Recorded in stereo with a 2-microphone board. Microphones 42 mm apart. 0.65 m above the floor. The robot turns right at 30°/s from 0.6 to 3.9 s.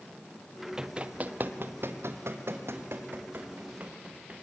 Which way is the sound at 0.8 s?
20° right (ahead or behind).